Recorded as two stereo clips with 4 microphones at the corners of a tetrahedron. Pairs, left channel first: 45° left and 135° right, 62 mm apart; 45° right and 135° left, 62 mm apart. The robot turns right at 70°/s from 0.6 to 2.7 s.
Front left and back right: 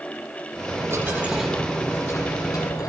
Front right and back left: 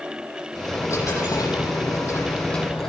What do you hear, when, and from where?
0.7 s a dropped coin: 105° right, 9 m; by 2.9 s 40° left, 9 m